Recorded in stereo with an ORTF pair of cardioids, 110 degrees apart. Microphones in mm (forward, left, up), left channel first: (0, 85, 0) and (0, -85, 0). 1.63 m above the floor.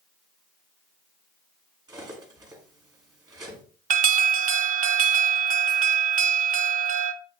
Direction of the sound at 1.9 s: 25° right.